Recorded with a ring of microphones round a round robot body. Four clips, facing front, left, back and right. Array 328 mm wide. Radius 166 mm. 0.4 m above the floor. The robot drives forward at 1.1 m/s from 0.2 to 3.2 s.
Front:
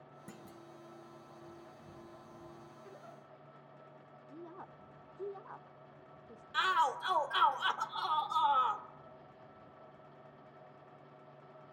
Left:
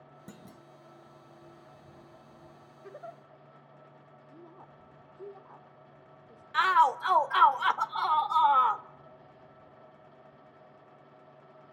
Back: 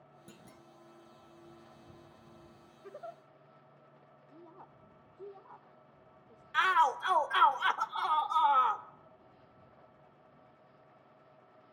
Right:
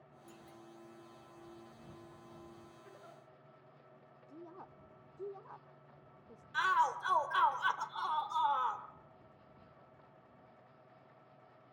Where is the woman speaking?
10° right, 1.0 m.